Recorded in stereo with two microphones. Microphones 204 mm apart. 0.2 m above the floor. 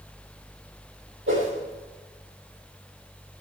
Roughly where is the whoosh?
Right.